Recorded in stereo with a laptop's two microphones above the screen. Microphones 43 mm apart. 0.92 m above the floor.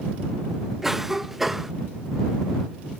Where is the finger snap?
No finger snap in this recording.